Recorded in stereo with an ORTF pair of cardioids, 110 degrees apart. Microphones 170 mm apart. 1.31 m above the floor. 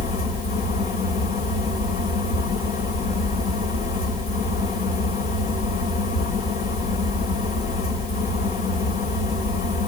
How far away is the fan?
About 3.5 m.